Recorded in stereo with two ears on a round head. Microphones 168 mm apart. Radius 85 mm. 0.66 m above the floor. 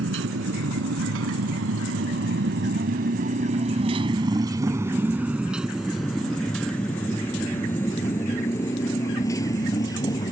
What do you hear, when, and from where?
0.0 s a motorcycle: 80° right; by 10.3 s 20° left (ahead or behind)